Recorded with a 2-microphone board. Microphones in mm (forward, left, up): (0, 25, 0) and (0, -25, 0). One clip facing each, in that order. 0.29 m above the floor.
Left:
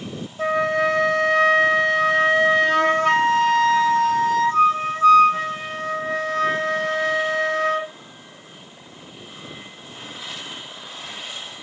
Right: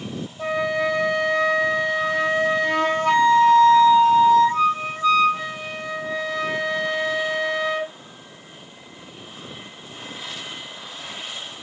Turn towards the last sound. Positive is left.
turn(degrees=75)  # may be behind; listen again after turning